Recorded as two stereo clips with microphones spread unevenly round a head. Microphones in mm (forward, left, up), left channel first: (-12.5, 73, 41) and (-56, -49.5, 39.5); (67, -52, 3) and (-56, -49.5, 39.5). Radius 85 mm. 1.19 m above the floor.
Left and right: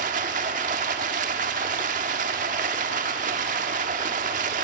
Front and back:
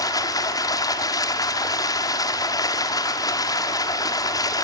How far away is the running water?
About 1.3 m.